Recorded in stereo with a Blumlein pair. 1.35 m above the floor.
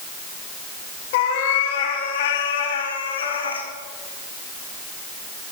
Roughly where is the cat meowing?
Ahead left.